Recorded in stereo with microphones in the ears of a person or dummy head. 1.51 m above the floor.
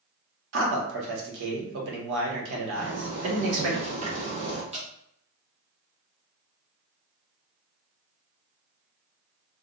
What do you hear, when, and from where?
0.5 s a man speaking: 70° right (ahead or behind), 1.3 m
2.8 s a zipper: 40° right (ahead or behind), 1.6 m
4.7 s dripping: 30° right (ahead or behind), 0.7 m